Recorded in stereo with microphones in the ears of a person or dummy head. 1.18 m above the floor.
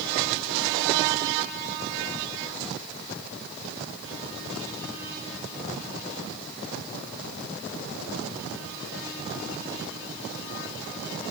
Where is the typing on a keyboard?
I don't hear typing on a keyboard.